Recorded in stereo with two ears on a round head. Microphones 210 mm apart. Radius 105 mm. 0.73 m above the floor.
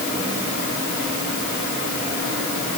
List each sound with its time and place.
Only background noise.